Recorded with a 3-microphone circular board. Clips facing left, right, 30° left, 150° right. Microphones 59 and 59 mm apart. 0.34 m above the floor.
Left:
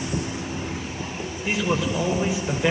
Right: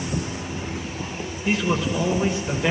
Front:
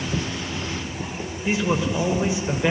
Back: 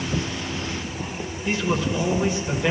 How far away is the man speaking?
About 0.9 m.